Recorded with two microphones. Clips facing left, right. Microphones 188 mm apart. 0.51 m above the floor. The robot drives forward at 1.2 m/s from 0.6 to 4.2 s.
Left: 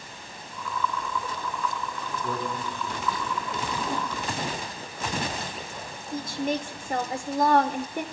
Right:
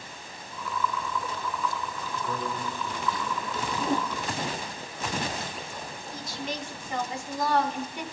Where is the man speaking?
30° left (ahead or behind), 6.5 m; by 3.7 s 25° left (ahead or behind), 8.5 m.